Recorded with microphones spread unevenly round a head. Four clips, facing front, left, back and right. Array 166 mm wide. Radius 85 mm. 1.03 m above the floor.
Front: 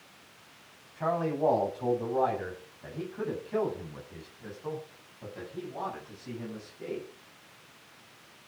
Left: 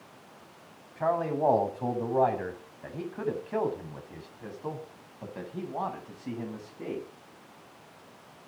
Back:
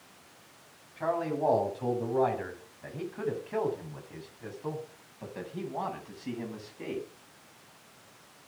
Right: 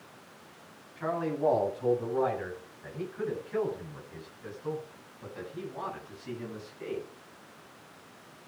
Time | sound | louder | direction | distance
1.0 | a man speaking | left 3 dB, front 1 dB | 90° left | 9 m